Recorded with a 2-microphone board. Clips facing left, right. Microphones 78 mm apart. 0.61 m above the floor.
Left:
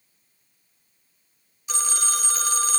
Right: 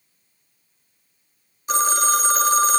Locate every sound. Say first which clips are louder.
1.7 s a phone ringing: right 10 dB; 40° right (ahead or behind), 1.2 m